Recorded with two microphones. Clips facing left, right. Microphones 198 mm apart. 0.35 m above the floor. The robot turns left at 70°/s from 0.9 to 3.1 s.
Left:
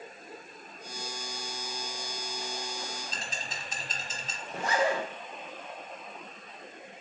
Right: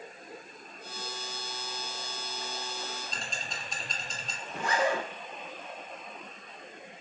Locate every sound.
3.1 s ticking: 5° left (ahead or behind), 0.8 m
4.5 s a zipper: 40° left (ahead or behind), 1.0 m